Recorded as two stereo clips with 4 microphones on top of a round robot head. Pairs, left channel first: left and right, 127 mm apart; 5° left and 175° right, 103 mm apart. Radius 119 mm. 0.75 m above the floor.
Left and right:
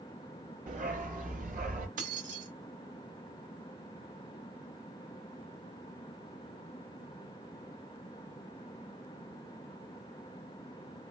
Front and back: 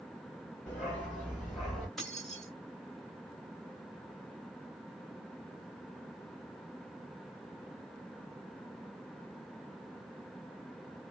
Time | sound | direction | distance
0.7 | a dog barking | 75° right | 3 m
2.0 | keys jangling | 85° right | 3 m